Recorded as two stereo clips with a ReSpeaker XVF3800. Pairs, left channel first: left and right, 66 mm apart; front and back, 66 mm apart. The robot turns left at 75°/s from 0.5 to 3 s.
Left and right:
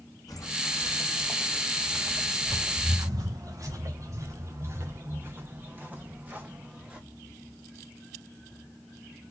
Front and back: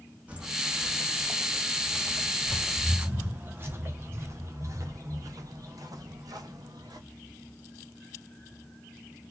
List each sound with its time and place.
0.3 s footsteps: 110° left, 3 m; by 7.0 s 160° right, 3 m